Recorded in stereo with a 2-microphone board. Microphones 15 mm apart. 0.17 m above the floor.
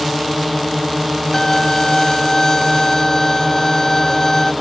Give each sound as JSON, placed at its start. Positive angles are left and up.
{"t": 0.0, "sound": "a drone", "side_deg": 0}
{"t": 1.3, "sound": "a violin", "side_deg": 25}